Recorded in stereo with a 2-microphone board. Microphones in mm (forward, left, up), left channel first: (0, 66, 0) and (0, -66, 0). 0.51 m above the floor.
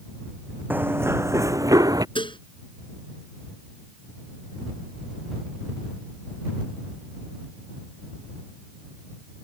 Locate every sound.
0.7 s running footsteps: 15° right (ahead or behind); by 2.0 s 30° right (ahead or behind)
2.1 s dishes clattering: 40° left (ahead or behind)